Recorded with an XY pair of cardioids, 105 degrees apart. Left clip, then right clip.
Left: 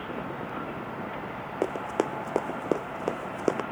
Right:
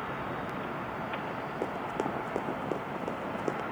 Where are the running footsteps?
50° left.